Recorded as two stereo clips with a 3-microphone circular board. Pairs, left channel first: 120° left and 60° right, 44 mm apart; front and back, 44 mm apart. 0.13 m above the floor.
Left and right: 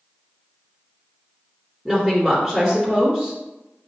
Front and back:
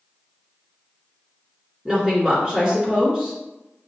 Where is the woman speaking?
115° right, 1.9 m.